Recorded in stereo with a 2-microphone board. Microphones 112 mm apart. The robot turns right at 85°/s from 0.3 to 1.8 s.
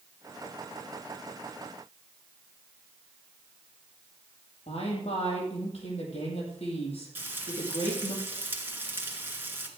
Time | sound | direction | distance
4.7 | a woman speaking | 75° left (ahead or behind) | 5.5 m
7.2 | frying | 20° right (ahead or behind) | 2 m